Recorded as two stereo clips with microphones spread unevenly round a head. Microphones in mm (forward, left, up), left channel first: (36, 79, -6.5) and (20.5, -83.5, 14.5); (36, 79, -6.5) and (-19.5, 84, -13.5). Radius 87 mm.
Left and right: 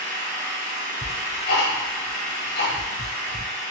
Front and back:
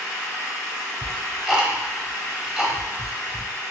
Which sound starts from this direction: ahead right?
An engine running, at 0.0 s.